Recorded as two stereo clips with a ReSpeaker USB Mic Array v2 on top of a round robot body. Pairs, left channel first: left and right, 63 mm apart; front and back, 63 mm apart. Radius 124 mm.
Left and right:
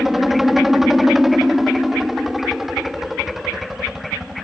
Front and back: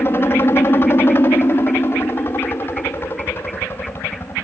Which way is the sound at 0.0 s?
5° right.